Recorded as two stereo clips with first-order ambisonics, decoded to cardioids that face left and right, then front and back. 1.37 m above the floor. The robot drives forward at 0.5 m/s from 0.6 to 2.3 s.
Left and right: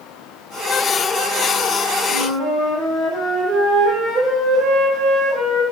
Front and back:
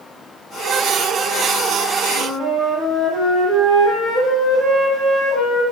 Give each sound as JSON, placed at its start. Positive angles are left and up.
{"t": 2.1, "sound": "a flute", "azimuth_deg": -130, "distance_m": 1.0}